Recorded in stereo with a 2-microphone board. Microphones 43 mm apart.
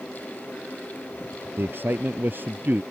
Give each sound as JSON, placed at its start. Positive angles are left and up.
{"t": 1.6, "sound": "a man speaking", "side_deg": -55}